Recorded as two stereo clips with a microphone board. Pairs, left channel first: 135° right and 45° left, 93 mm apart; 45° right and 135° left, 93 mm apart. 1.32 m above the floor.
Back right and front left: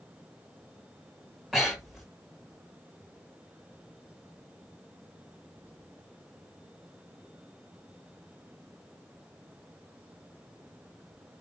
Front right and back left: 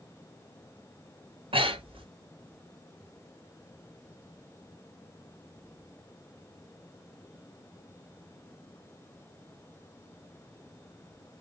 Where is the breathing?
135° left, 5 m.